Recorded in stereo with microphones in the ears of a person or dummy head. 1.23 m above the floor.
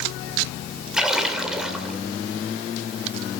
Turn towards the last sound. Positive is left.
turn(degrees=-5)  # may be behind; listen again after turning